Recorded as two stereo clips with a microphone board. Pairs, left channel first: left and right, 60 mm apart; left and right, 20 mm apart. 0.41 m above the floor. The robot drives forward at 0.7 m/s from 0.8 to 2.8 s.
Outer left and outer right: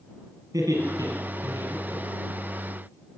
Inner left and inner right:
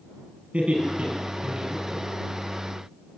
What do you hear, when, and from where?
0.5 s laughter: 75° right (ahead or behind), 8 m; by 2.4 s 85° right, 7.5 m